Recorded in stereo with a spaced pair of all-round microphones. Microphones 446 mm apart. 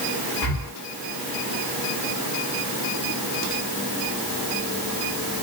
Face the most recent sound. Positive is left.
turn(degrees=50)  # may be behind; listen again after turning